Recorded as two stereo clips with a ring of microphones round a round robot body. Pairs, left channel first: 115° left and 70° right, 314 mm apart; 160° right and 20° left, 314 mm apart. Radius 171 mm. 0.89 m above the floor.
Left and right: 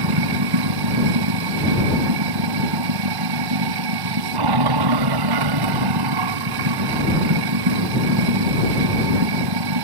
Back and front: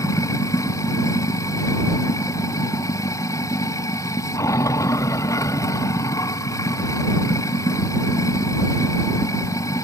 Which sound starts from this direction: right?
Running water, at 0.0 s.